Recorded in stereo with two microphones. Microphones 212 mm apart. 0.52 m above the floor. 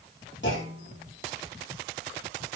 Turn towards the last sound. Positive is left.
turn(degrees=60)  # may be behind; listen again after turning